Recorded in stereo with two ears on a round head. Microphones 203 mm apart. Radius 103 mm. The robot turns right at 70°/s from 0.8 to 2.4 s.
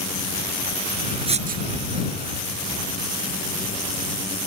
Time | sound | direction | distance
1.3 | writing | 25° right (ahead or behind) | ?